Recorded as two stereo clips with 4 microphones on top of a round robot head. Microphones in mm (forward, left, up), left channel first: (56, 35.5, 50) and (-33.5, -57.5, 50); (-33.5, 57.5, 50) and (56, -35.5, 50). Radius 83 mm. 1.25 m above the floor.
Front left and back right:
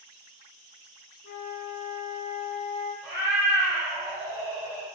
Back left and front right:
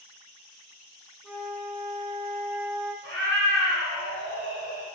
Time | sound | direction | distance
1.2 | a flute | 35° left | 2.0 m
3.0 | a cat meowing | 60° right | 3 m